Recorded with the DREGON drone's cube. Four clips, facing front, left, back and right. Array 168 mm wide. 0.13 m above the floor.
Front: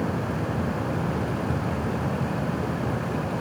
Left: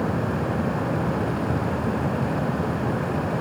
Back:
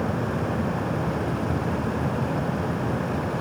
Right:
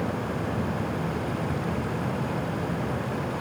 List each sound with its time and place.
Only background noise.